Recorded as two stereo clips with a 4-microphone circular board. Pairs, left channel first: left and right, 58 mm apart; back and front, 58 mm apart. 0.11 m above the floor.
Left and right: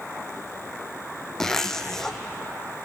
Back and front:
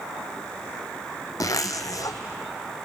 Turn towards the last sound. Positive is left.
turn(degrees=175)